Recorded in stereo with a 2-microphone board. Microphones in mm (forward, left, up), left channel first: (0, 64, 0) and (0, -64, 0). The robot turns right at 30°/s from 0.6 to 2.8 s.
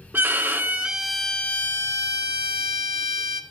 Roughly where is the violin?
Ahead.